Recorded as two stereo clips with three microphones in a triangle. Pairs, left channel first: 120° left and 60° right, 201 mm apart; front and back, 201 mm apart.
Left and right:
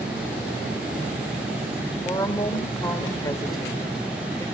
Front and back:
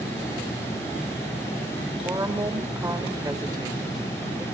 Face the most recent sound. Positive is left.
turn(degrees=145)